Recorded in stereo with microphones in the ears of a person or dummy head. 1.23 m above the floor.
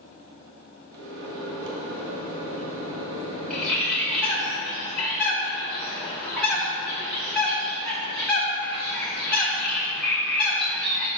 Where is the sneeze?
I don't hear a sneeze.